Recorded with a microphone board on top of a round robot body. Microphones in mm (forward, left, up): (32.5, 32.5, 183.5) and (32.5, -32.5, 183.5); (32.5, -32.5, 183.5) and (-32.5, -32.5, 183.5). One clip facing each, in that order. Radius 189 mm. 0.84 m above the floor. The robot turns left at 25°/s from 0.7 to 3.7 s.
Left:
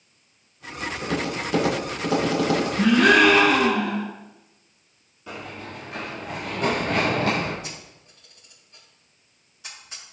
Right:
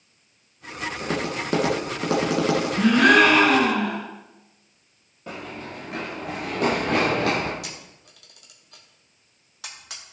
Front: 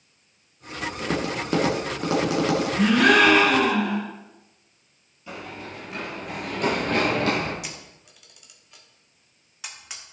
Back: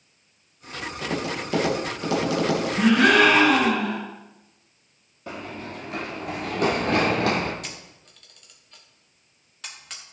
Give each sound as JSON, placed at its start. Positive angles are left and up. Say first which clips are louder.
{"t": 1.0, "sound": "tapping", "louder": "even, front 1 dB", "azimuth_deg": -35, "distance_m": 2.0}
{"t": 2.8, "sound": "a gasp", "louder": "right 1 dB, back 1 dB", "azimuth_deg": -105, "distance_m": 4.5}
{"t": 5.3, "sound": "running footsteps", "louder": "right 1 dB, back 2 dB", "azimuth_deg": -140, "distance_m": 1.5}
{"t": 7.6, "sound": "a camera shutter", "louder": "even, front 1 dB", "azimuth_deg": -80, "distance_m": 1.3}